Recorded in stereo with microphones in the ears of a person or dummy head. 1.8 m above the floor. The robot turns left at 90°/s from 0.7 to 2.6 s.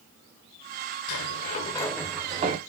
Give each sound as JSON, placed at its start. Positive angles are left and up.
{"t": 1.1, "sound": "a sliding door", "azimuth_deg": 90, "distance_m": 0.7}